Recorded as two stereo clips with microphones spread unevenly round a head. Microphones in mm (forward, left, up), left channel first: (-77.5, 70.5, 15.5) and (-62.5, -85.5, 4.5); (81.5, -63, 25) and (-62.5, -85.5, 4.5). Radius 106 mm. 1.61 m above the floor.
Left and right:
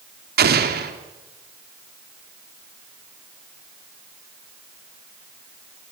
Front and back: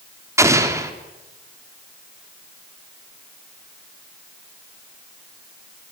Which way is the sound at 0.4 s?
100° right.